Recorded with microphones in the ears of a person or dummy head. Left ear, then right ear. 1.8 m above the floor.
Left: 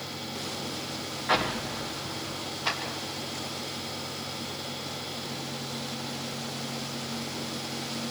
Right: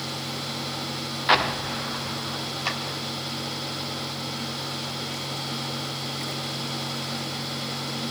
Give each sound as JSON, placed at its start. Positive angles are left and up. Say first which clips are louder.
{"t": 1.3, "sound": "an explosion", "louder": "right 6 dB", "side_deg": -60, "distance_m": 1.2}
{"t": 2.6, "sound": "a clap", "louder": "even", "side_deg": -30, "distance_m": 4.5}